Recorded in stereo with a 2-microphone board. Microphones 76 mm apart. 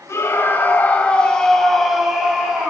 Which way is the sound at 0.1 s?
35° left (ahead or behind).